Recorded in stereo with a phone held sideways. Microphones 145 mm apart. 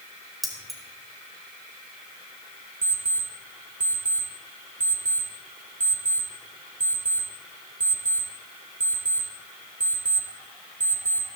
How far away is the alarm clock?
About 2.5 m.